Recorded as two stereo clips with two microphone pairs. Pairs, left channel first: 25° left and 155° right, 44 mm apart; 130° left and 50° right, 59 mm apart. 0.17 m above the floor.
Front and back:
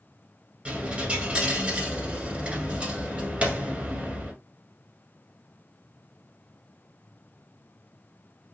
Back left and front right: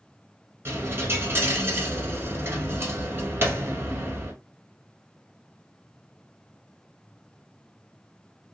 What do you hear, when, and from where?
0.7 s a dropped coin: 90° right, 1.0 m